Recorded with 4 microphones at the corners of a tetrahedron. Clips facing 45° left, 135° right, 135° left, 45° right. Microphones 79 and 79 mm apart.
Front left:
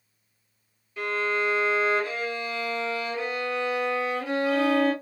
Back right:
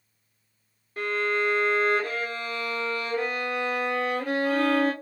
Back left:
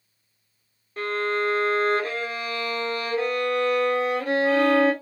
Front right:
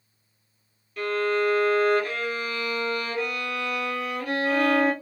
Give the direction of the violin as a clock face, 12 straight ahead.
6 o'clock.